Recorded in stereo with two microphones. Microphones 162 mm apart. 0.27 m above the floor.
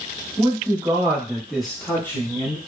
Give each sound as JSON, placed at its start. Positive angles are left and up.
{"t": 0.4, "sound": "a man speaking", "side_deg": -30, "distance_m": 1.3}